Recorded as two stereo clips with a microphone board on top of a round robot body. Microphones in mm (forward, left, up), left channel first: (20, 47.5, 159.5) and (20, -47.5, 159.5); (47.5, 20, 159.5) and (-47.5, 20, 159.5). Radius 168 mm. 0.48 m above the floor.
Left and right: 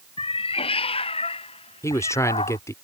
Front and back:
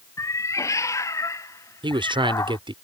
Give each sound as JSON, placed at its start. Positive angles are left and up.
{"t": 0.2, "sound": "a cat meowing", "azimuth_deg": 60}
{"t": 1.8, "sound": "a man speaking", "azimuth_deg": 150}